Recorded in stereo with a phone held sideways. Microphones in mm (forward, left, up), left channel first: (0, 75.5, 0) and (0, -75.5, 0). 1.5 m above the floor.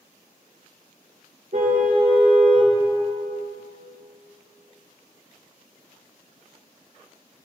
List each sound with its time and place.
1.5 s a car horn: 60° right (ahead or behind), 2 m